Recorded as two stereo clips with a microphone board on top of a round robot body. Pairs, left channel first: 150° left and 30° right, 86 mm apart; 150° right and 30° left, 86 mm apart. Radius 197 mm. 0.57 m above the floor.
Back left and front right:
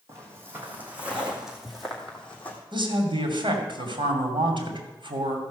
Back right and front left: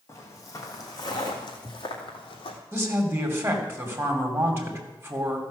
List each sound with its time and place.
0.1 s footsteps: 90° right, 1.9 m; by 2.6 s 140° right, 1.6 m
2.7 s a woman speaking: 30° right, 3 m